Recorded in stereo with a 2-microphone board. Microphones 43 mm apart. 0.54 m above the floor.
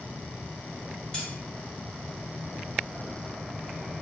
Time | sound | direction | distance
1.1 | cutlery clinking | 20° left (ahead or behind) | 1.2 m